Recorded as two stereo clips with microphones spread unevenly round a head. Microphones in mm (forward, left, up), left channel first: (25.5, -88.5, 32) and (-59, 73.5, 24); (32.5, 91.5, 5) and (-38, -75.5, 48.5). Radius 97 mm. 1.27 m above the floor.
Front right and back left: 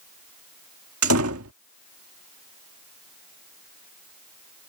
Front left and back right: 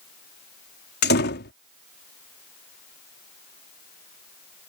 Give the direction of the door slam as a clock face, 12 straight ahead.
9 o'clock.